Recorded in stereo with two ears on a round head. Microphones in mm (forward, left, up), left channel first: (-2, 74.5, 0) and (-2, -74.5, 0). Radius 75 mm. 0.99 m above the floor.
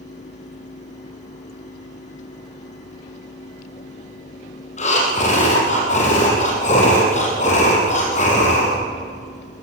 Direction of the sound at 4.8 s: 45° left (ahead or behind).